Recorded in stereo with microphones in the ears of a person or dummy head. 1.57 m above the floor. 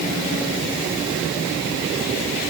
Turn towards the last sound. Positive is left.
No sound to turn to.